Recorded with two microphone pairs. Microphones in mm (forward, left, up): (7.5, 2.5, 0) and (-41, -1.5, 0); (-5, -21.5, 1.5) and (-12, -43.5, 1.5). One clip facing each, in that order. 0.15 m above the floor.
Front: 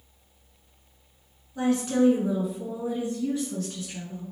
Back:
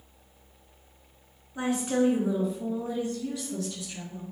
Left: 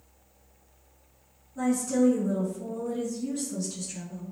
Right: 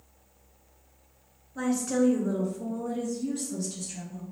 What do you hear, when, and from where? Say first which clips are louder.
1.6 s a woman speaking: front 3 dB, left 1 dB; 120° right, 1.8 m; by 4.3 s 5° left, 1.9 m